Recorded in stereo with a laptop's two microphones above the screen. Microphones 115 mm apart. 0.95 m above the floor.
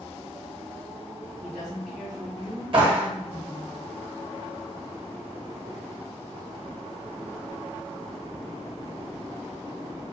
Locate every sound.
1.4 s a woman speaking: 75° right (ahead or behind), 1.6 m
2.7 s a clap: 45° right (ahead or behind), 1.3 m